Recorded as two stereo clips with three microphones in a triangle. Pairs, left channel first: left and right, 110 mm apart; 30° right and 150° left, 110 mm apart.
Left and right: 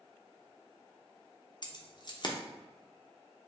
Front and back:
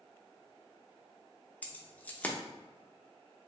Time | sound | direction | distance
1.6 | keys jangling | 45° left | 0.9 m